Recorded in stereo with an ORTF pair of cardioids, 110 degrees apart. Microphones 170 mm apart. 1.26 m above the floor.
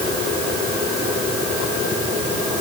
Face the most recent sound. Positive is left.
No sound to turn to.